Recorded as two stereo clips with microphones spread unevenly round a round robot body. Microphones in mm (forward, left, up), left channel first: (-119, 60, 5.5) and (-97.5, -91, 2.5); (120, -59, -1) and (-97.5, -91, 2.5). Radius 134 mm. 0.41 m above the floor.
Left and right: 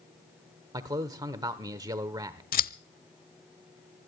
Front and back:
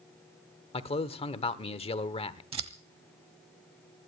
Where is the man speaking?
35° right, 1.0 m.